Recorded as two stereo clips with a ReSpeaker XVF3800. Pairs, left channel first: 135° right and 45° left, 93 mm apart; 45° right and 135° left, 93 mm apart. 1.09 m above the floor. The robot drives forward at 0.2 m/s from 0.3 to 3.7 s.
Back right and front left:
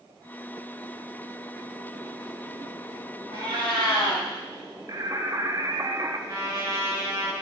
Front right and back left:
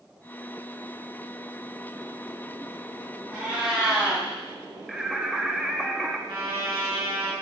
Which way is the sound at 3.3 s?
140° right.